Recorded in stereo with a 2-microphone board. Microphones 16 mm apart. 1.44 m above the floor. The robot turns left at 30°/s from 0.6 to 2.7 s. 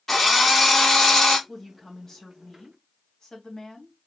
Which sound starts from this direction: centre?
A drill, at 0.1 s.